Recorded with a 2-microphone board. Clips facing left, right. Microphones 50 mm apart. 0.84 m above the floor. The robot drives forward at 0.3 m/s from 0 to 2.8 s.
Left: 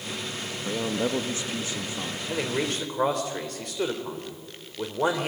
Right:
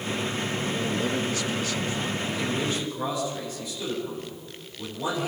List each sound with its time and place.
0.7 s a man speaking: 30° left (ahead or behind), 1.2 m; by 2.2 s 25° left (ahead or behind), 1.5 m
2.3 s a man speaking: 70° left (ahead or behind), 3.5 m; by 5.3 s 75° left (ahead or behind), 3.5 m